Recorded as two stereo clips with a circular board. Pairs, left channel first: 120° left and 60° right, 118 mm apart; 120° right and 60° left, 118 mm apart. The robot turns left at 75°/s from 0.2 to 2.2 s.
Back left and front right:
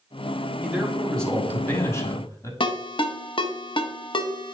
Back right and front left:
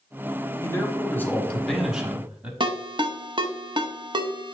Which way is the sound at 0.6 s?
125° right.